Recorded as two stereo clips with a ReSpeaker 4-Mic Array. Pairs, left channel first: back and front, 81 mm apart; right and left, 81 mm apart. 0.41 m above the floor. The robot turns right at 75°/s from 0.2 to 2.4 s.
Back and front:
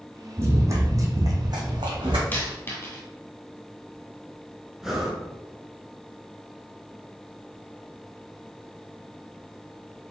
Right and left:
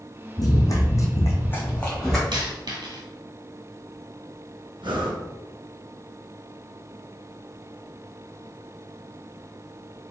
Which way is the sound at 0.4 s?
55° right.